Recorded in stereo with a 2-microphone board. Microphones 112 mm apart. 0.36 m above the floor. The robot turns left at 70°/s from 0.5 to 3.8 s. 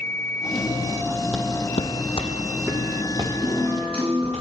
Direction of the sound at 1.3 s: Centre (ahead or behind).